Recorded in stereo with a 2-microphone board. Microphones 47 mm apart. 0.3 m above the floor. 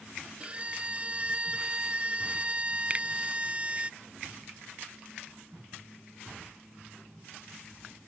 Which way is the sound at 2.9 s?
30° right (ahead or behind).